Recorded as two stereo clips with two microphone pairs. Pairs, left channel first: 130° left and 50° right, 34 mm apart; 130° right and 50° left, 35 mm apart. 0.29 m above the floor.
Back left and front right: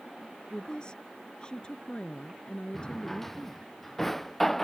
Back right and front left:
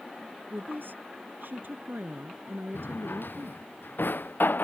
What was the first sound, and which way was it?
A woman speaking, 70° left.